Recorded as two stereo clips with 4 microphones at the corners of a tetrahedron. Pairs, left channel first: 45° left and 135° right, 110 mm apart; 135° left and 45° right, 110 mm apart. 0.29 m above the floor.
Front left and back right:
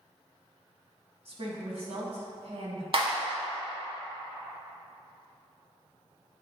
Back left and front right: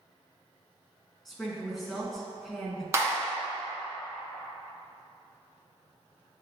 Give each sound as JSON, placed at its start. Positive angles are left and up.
{"t": 1.2, "sound": "a woman speaking", "azimuth_deg": -135, "distance_m": 2.0}
{"t": 2.9, "sound": "a clap", "azimuth_deg": -105, "distance_m": 2.0}